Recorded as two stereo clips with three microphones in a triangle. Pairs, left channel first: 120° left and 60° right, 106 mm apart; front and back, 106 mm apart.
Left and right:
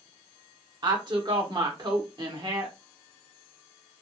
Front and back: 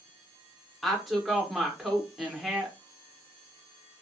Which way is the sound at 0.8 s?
90° right.